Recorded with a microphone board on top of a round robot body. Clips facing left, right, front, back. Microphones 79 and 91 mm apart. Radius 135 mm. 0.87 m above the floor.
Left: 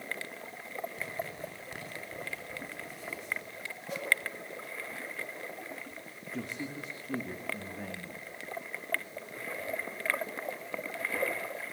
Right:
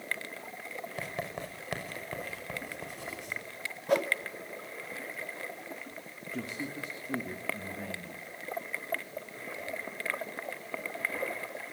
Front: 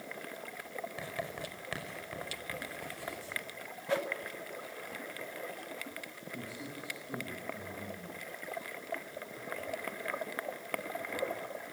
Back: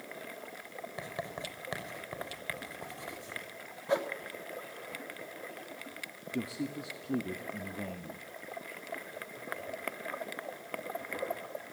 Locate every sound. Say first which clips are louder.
1.0 s writing: right 1 dB, back 3 dB; 110° right, 5.5 m
3.9 s a whoosh: right 12 dB, back 2 dB; 110° right, 2.5 m
6.3 s a man speaking: right 1 dB, back 9 dB; straight behind, 1.9 m